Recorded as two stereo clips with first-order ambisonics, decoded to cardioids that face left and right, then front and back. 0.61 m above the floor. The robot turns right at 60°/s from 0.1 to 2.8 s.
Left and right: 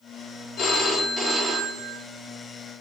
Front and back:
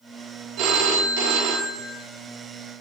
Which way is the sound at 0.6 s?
140° left.